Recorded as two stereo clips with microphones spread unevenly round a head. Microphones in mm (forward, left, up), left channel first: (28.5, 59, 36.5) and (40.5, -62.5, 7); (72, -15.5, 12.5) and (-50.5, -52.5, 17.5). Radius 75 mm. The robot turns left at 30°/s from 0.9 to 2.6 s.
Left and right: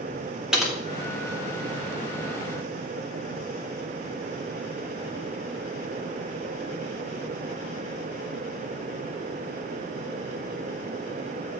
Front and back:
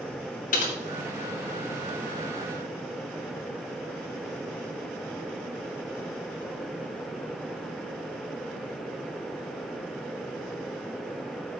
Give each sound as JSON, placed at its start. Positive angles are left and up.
{"t": 0.5, "sound": "typing on a keyboard", "azimuth_deg": 0, "distance_m": 2.5}